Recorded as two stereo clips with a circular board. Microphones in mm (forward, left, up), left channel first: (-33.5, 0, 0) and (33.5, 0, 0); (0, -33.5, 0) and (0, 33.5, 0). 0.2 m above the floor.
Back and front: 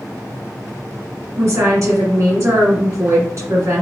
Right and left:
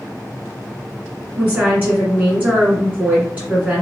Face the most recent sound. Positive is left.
turn(degrees=30)